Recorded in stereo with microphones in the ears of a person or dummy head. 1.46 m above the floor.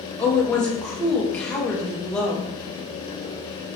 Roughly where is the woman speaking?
Centre.